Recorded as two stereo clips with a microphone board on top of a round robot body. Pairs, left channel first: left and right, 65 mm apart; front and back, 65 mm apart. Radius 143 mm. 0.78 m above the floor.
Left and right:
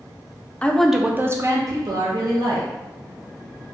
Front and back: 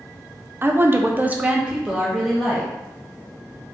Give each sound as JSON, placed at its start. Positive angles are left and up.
{"t": 0.6, "sound": "a woman speaking", "azimuth_deg": 150, "distance_m": 0.6}